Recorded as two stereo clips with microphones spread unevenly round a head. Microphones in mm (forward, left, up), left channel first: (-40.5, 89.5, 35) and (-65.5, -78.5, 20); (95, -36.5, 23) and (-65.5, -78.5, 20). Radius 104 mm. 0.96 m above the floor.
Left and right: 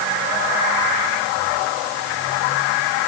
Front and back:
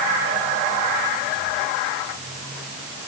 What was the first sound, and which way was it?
Only background noise.